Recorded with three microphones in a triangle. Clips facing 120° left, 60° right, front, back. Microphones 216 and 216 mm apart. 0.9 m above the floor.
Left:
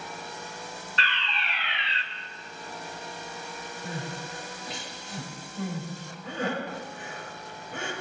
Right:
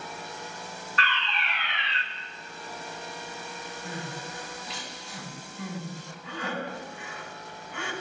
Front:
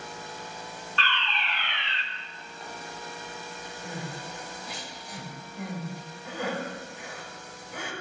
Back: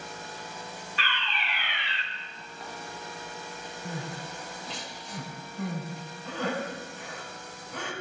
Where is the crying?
75° left, 4.5 m.